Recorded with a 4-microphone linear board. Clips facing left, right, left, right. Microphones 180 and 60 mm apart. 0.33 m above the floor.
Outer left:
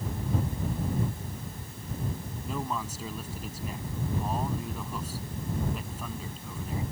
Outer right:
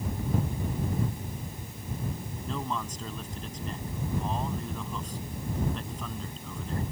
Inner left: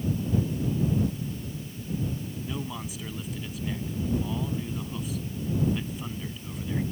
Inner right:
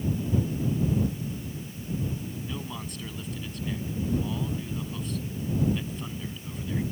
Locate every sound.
2.5 s a man speaking: 5° left (ahead or behind)